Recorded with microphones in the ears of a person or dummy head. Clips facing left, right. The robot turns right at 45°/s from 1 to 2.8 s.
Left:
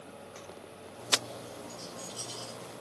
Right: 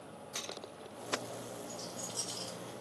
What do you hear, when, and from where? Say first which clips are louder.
1.7 s a rattle: even; 10° right (ahead or behind), 2 m; by 2.6 s 45° right (ahead or behind), 2 m